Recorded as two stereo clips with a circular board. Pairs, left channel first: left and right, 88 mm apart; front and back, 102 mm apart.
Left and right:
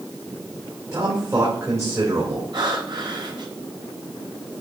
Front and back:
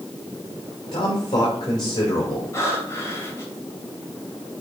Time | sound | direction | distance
0.9 | a man speaking | 35° right | 2.5 m
2.5 | breathing | 60° right | 3 m